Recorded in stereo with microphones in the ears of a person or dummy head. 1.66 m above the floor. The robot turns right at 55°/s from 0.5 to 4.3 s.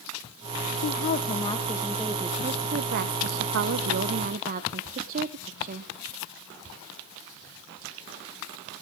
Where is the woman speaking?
120° left, 1.0 m; by 5.9 s 50° right, 1.0 m.